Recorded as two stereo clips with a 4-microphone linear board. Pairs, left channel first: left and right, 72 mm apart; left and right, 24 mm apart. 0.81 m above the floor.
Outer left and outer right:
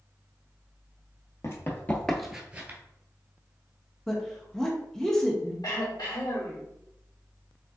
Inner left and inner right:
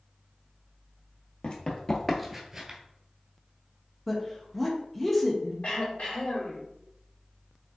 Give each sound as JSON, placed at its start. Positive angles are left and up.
{"t": 1.4, "sound": "running footsteps", "side_deg": 45, "distance_m": 1.1}
{"t": 4.1, "sound": "a woman speaking", "side_deg": 5, "distance_m": 0.7}
{"t": 5.6, "sound": "throat clearing", "side_deg": 75, "distance_m": 1.6}